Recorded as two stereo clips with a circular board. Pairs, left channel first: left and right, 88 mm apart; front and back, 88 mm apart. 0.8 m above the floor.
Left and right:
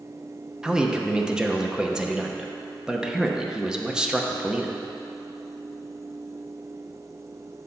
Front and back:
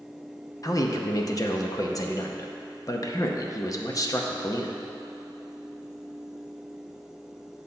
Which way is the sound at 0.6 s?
10° right.